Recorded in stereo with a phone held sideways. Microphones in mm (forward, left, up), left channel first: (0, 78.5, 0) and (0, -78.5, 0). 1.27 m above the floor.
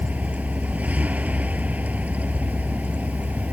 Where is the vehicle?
10° right (ahead or behind).